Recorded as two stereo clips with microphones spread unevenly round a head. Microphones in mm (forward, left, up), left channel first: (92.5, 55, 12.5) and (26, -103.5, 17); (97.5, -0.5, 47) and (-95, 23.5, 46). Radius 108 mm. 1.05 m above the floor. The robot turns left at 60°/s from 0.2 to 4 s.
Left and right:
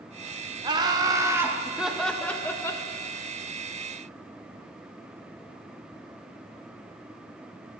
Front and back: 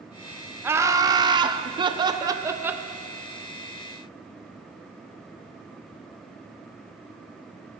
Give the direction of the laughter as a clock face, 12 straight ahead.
4 o'clock.